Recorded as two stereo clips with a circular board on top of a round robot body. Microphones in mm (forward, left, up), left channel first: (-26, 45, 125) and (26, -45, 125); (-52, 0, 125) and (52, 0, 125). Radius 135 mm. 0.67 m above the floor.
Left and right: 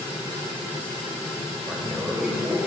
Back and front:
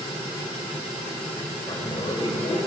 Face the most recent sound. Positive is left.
turn(degrees=-140)